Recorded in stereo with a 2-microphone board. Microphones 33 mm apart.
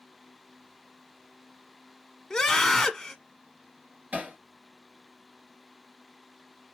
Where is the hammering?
60° right (ahead or behind), 2 m.